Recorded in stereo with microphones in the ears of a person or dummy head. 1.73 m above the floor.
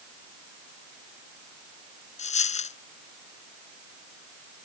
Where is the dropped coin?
35° left (ahead or behind).